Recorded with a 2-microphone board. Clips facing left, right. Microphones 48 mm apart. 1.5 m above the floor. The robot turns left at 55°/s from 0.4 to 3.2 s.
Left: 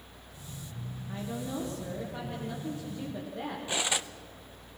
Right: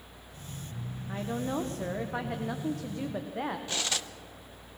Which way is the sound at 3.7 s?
15° left (ahead or behind).